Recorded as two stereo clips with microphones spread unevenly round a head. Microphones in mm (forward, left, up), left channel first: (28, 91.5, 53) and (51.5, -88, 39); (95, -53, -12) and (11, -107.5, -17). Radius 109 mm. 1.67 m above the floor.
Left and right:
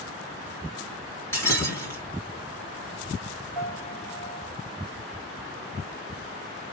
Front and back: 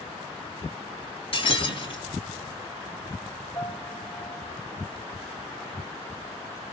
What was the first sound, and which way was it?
Breaking glass, 25° left.